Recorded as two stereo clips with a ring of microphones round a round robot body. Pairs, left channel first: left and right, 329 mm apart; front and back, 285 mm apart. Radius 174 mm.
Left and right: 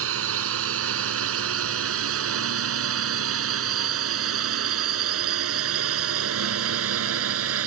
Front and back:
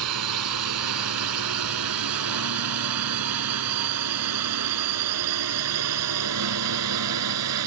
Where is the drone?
140° right.